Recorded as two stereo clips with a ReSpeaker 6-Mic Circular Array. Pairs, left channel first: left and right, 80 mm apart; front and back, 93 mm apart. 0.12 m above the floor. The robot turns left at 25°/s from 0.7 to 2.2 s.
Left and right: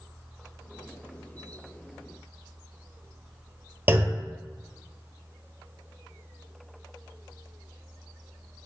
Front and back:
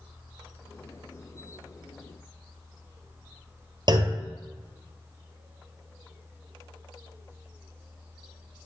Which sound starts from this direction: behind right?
A clunk, at 3.9 s.